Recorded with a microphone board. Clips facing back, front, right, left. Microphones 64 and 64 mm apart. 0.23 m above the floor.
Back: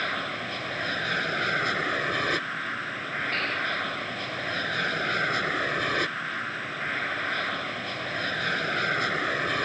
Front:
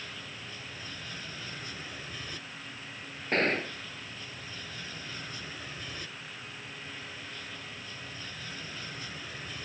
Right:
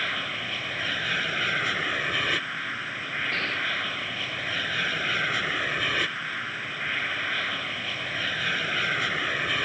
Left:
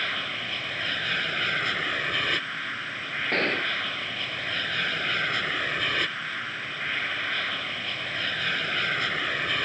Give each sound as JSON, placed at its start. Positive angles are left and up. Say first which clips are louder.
{"t": 0.0, "sound": "an aircraft", "louder": "back 14 dB, right 1 dB", "azimuth_deg": -175}
{"t": 3.3, "sound": "a gunshot", "louder": "front 3 dB, left 5 dB", "azimuth_deg": 50}